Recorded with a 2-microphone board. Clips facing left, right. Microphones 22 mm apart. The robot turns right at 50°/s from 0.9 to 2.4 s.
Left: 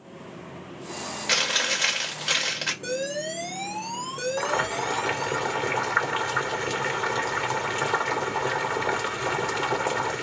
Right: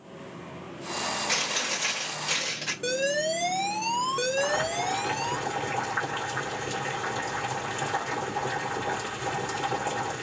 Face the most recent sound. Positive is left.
turn(degrees=65)  # may be behind; listen again after turning